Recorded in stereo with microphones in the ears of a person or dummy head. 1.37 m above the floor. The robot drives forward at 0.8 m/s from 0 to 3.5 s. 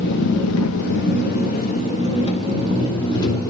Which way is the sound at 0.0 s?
60° left (ahead or behind).